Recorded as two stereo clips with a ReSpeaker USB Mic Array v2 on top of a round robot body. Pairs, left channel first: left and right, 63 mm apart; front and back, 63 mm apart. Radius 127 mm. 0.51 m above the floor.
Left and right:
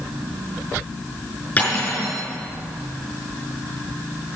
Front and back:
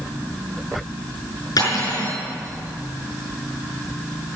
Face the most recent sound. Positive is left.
turn(degrees=20)